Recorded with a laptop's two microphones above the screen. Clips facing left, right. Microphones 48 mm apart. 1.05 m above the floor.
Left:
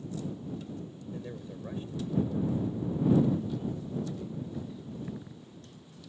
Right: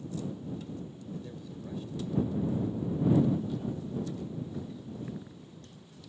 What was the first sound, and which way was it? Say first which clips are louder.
A man speaking: left 2 dB; 35° left (ahead or behind).